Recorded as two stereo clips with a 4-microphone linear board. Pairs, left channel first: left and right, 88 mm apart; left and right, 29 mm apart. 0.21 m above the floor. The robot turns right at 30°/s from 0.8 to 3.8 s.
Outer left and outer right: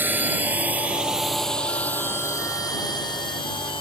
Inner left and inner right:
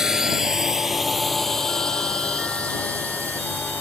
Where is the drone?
20° right (ahead or behind); by 3.8 s 75° left (ahead or behind).